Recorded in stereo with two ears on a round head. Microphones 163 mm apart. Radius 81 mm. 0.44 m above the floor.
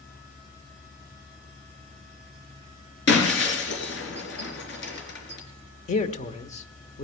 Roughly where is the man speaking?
Left.